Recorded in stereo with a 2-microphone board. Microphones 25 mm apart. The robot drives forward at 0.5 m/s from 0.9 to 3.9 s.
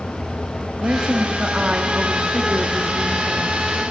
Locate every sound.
0.8 s a woman speaking: 50° right (ahead or behind), 1.8 m; by 3.8 s 30° right (ahead or behind), 3 m